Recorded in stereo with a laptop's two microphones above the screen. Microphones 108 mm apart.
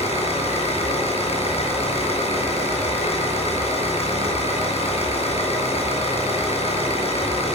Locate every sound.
0.0 s an engine running: 70° left (ahead or behind), 8 m